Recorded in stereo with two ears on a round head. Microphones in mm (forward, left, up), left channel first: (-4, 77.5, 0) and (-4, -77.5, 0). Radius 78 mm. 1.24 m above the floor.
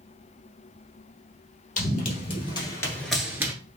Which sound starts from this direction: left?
Running footsteps, at 1.8 s.